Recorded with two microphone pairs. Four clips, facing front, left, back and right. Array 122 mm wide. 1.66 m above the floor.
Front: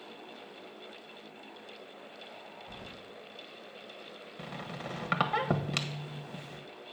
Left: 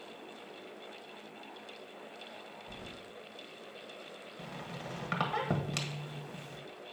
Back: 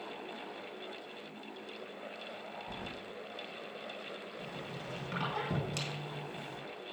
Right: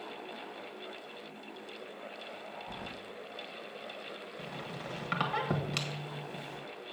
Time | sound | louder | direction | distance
2.7 | keys jangling | right 4 dB, back 4 dB | 115° right | 1.1 m
4.4 | a squeak | even, front 2 dB | 5° left | 1.4 m